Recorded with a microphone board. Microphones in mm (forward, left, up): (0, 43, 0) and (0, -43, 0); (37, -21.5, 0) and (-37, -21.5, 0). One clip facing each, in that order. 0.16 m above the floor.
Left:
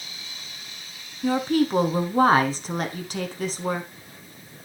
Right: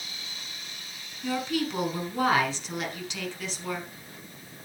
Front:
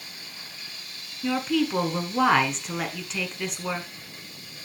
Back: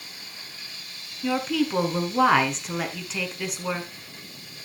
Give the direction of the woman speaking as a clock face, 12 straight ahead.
9 o'clock.